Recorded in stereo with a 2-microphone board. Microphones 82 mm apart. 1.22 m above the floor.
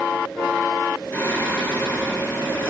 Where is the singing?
30° left (ahead or behind), 3 m.